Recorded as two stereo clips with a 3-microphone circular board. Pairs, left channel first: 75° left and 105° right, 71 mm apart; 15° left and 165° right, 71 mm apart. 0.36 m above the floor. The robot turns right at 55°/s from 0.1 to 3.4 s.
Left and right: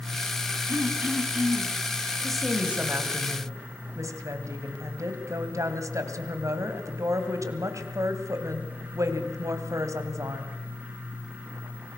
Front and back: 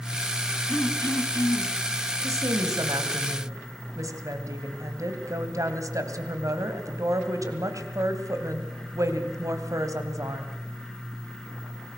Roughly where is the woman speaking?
Behind.